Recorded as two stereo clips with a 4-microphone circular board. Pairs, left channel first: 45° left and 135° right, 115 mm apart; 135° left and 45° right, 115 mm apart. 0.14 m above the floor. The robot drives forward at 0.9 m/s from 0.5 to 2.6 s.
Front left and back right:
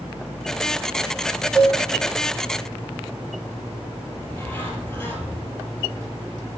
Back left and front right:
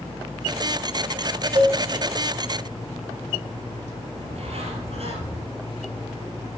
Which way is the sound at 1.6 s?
65° right.